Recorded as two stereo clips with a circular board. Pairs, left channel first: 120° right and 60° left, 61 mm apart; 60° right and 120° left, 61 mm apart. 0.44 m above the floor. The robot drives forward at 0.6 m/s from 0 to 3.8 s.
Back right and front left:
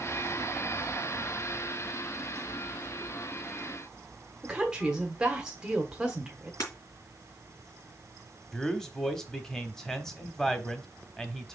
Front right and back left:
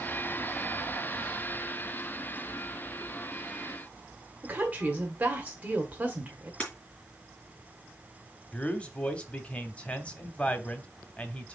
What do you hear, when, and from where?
4.4 s a woman speaking: 120° left, 1.2 m
6.6 s breaking glass: 135° right, 4 m
8.5 s a man speaking: 50° right, 1.1 m